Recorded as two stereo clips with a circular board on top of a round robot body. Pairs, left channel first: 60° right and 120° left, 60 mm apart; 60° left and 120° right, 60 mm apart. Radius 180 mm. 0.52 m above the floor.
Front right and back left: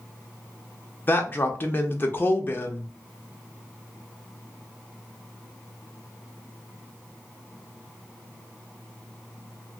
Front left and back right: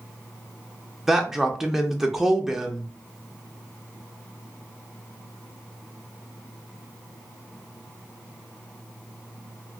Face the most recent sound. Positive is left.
turn(degrees=-45)